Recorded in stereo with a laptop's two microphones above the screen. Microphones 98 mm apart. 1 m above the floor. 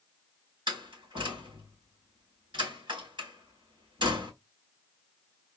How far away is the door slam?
About 4.5 m.